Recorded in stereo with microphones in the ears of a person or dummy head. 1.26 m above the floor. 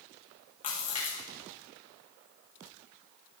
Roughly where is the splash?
Left.